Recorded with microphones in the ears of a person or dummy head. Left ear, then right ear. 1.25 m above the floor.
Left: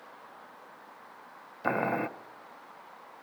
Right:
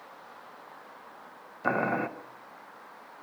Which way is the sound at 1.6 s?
5° left (ahead or behind).